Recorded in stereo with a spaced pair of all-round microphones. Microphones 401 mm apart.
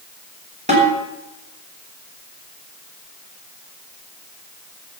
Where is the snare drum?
20° right (ahead or behind), 6.5 m.